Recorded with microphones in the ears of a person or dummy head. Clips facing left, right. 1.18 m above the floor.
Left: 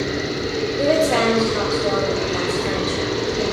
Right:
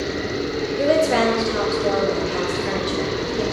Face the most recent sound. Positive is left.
turn(degrees=-5)  # may be behind; listen again after turning